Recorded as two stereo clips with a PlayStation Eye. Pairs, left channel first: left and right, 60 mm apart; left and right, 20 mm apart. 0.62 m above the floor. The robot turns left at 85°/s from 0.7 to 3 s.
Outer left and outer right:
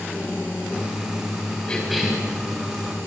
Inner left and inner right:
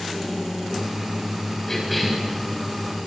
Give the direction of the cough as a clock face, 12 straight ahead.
11 o'clock.